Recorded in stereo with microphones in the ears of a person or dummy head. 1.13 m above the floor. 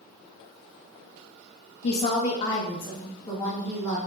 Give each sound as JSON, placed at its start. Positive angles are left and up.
{"t": 1.8, "sound": "a woman speaking", "side_deg": 40, "distance_m": 0.5}